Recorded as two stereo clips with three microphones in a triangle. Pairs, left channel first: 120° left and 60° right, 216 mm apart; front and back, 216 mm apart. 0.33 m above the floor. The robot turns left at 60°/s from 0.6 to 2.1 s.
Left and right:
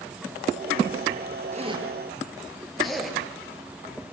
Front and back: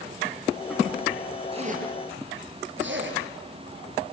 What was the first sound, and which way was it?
A zipper, 115° right.